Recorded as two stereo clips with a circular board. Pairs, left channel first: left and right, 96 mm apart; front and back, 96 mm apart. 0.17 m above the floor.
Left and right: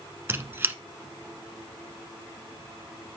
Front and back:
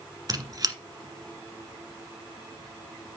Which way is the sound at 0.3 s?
150° right.